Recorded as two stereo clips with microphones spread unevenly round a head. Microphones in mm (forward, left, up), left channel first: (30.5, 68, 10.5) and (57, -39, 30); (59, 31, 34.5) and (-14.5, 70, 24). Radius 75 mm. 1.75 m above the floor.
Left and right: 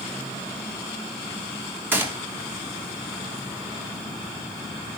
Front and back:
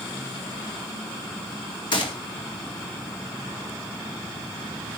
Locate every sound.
1.9 s a gunshot: 5° right, 3 m